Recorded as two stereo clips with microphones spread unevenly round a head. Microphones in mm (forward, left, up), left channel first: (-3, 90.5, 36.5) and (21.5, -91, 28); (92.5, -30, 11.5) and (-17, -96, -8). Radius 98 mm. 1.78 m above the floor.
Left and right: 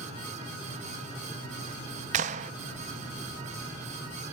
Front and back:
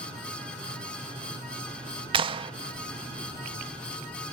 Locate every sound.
2.1 s a clap: 115° right, 0.5 m